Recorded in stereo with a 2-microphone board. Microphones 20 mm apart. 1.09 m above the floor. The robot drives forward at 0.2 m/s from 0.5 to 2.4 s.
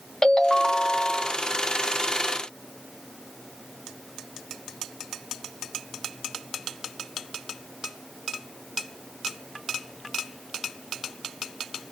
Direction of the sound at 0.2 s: 30° left (ahead or behind).